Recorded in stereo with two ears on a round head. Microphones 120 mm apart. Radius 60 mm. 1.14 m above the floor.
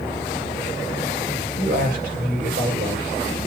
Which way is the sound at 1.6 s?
85° right.